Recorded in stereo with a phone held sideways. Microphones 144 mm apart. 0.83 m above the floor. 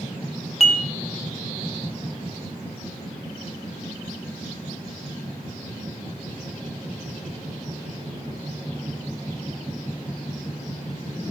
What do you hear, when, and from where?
0.6 s dishes clattering: 45° left (ahead or behind), 0.7 m